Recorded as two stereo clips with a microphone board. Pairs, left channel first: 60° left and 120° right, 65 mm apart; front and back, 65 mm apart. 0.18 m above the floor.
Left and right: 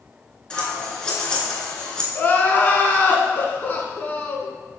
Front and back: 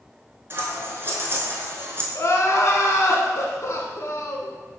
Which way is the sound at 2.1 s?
10° left.